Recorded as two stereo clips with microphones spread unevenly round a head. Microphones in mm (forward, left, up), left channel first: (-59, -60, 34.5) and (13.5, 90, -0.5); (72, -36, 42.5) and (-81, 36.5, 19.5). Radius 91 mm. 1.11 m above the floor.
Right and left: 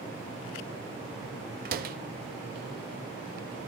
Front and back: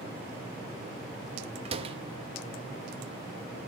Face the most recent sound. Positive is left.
turn(degrees=95)